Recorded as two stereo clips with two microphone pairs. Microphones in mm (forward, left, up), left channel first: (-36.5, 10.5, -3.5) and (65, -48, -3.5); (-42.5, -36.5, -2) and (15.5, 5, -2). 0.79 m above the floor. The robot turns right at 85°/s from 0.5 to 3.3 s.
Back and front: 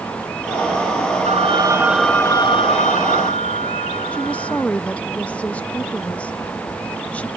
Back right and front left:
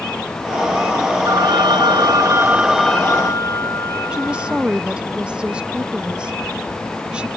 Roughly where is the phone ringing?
Ahead.